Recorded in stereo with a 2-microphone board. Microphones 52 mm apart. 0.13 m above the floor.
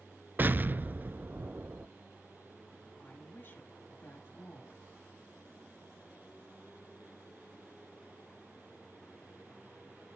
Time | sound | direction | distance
0.4 | an explosion | 40° right (ahead or behind) | 0.5 m
3.0 | a woman speaking | 50° left (ahead or behind) | 2 m